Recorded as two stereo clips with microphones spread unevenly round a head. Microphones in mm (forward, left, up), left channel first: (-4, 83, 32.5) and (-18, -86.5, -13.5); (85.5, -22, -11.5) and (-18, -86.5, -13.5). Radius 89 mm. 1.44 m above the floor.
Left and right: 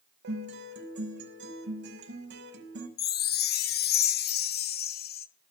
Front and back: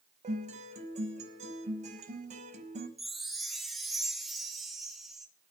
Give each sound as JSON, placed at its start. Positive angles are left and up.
{"t": 0.2, "sound": "a guitar", "azimuth_deg": -120, "distance_m": 5.5}
{"t": 3.0, "sound": "a chime", "azimuth_deg": 120, "distance_m": 1.1}